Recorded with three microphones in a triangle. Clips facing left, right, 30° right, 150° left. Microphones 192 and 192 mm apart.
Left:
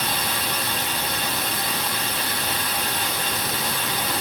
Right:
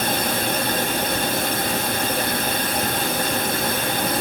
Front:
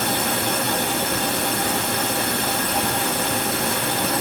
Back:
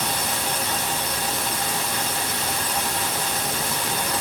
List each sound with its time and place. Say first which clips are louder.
0.0 s running water: right 6 dB, front 5 dB; 50° right, 1.8 m